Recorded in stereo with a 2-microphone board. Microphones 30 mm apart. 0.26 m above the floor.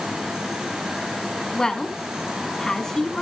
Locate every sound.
1.5 s a woman speaking: 20° left (ahead or behind), 2 m